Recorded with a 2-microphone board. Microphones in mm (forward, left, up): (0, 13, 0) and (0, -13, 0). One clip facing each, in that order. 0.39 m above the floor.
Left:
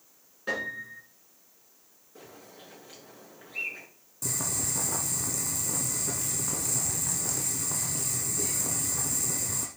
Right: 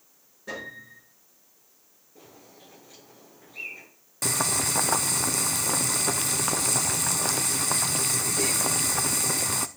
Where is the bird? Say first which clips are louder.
Left 2 dB; 65° left (ahead or behind), 6 m.